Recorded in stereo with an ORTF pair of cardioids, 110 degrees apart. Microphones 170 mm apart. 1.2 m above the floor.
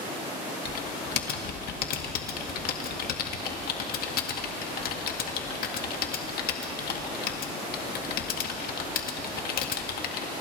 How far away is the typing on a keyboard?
About 2 m.